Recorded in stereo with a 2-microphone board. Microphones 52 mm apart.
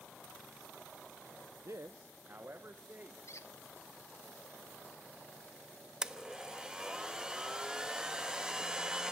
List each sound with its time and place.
1.6 s a man speaking: 65° right (ahead or behind), 0.6 m; by 3.2 s 40° right (ahead or behind), 1.8 m
3.3 s a squeak: 65° left (ahead or behind), 1.3 m
6.0 s a blender: 15° right (ahead or behind), 0.9 m